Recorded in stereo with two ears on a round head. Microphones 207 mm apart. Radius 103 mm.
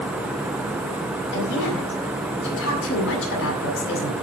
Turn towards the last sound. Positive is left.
turn(degrees=60)  # may be behind; listen again after turning